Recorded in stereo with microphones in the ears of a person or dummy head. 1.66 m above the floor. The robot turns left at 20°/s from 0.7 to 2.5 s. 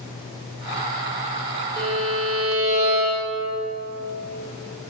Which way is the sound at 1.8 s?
25° right (ahead or behind).